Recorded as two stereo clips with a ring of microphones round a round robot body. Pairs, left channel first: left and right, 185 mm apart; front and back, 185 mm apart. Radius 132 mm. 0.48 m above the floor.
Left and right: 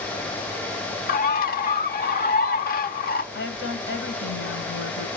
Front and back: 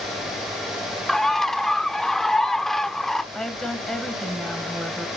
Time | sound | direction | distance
1.1 | a bird | 90° left | 1.1 m
3.3 | a woman speaking | 90° left | 3 m